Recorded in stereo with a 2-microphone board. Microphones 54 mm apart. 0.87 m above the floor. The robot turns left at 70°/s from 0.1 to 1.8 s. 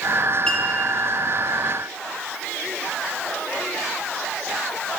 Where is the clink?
10° left (ahead or behind), 3.5 m; by 0.6 s centre (ahead or behind), 3.5 m.